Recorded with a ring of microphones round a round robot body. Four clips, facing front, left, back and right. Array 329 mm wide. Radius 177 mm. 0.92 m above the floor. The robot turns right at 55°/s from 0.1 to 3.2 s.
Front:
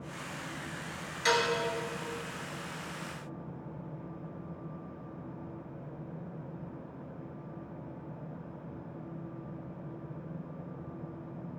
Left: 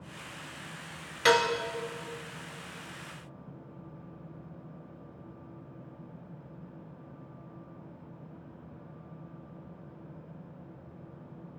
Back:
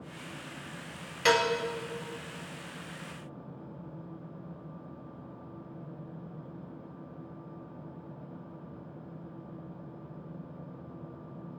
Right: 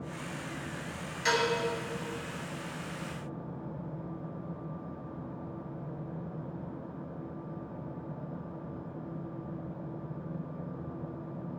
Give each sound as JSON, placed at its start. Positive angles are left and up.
{"t": 1.2, "sound": "dishes clattering", "azimuth_deg": 125, "distance_m": 0.6}